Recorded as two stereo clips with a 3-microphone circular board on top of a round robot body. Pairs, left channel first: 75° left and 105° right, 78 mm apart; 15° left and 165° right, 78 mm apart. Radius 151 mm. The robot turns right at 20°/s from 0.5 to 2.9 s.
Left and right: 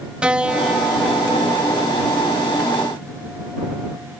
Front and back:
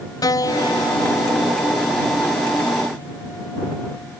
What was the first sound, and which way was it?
A piano, 25° right.